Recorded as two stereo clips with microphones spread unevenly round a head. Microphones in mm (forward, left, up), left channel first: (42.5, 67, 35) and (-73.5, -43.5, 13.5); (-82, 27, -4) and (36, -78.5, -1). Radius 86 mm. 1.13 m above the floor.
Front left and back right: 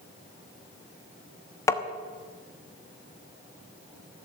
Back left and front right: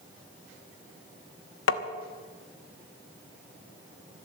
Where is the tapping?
115° left, 1.1 m.